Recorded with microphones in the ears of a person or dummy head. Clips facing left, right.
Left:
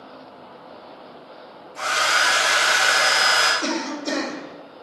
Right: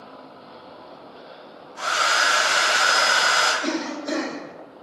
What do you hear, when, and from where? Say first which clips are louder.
1.8 s a hair dryer: left 1 dB; 50° left (ahead or behind), 1.5 m
3.6 s a cough: even; 45° left (ahead or behind), 0.9 m